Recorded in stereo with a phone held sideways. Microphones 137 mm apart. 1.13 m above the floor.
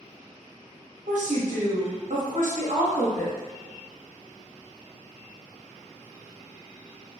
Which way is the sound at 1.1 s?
70° right (ahead or behind).